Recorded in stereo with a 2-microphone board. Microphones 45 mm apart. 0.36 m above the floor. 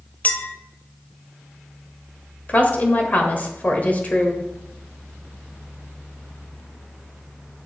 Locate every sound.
0.2 s a clink: 40° left (ahead or behind), 0.6 m
2.5 s a woman speaking: 35° left (ahead or behind), 1.4 m